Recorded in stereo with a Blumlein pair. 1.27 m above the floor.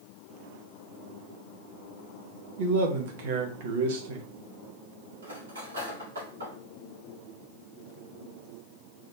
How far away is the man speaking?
About 1.2 m.